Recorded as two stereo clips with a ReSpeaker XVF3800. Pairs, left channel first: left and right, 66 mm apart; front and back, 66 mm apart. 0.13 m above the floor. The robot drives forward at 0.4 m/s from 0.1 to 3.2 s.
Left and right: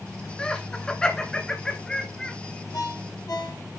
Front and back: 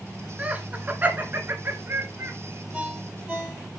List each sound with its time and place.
0.4 s laughter: 145° left, 1.1 m; by 2.3 s 170° left, 1.6 m
2.7 s a ringtone: 105° left, 2.5 m; by 3.8 s 110° left, 2.5 m